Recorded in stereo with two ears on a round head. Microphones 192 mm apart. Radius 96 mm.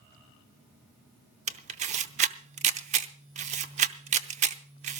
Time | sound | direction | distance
1.5 | a camera shutter | 35° right (ahead or behind) | 0.7 m